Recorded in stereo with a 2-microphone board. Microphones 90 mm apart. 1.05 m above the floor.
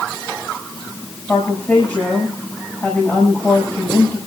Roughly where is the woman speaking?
Left.